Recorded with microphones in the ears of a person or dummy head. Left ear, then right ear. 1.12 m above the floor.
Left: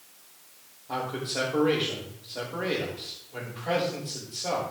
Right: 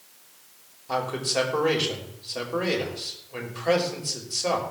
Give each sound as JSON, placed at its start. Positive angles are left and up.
{"t": 0.9, "sound": "a man speaking", "side_deg": -65, "distance_m": 6.0}